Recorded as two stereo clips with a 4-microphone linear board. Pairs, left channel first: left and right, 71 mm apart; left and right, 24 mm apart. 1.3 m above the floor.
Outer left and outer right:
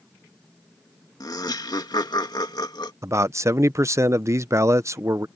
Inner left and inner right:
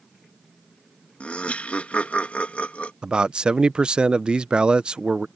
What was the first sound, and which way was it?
Laughter, 65° left (ahead or behind).